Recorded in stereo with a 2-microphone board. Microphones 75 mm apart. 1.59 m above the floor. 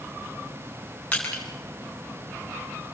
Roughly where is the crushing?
Centre.